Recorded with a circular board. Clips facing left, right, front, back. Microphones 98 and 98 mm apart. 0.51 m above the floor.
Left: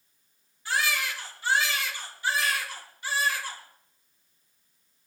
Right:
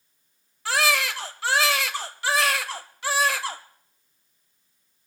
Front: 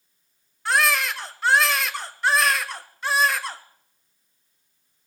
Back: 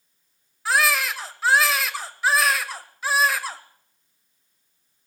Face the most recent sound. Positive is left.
turn(degrees=-90)